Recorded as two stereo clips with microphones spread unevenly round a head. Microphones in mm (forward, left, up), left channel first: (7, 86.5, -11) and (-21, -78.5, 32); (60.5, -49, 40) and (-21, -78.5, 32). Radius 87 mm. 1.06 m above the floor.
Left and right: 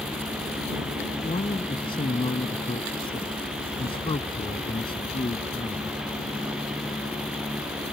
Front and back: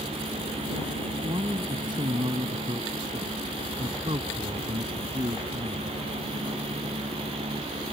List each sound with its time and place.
1.2 s a man speaking: 145° left